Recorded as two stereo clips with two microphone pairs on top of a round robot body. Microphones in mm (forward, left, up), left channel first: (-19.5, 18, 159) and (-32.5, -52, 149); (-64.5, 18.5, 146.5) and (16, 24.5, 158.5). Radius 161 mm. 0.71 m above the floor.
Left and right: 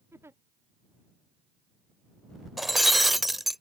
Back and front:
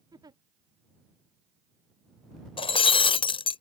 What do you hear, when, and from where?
0.1 s a giggle: 40° right
2.6 s breaking glass: 165° left